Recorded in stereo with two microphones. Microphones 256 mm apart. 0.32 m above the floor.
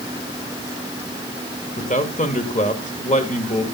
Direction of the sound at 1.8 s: 30° left (ahead or behind).